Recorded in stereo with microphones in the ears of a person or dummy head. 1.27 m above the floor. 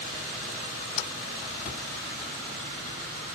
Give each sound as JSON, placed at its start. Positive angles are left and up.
{"t": 1.6, "sound": "a cupboard door", "side_deg": 25, "distance_m": 1.0}